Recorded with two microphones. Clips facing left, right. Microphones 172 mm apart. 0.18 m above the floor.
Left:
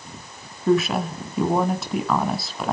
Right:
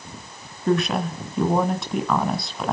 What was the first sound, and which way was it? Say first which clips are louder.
A woman speaking: left 2 dB; centre (ahead or behind).